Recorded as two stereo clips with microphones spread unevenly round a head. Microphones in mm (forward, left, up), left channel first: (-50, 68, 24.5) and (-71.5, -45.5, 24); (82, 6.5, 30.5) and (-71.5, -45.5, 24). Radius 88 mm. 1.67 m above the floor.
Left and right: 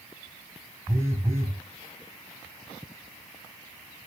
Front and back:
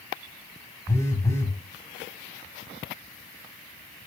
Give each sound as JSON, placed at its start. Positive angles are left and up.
{"t": 0.9, "sound": "a phone buzzing", "azimuth_deg": -40, "distance_m": 1.7}